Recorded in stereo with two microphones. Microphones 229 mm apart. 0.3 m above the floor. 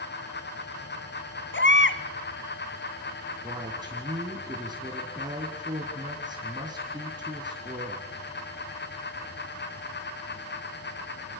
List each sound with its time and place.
1.5 s a baby crying: 60° left (ahead or behind), 1.4 m
3.4 s a woman speaking: 20° right (ahead or behind), 3 m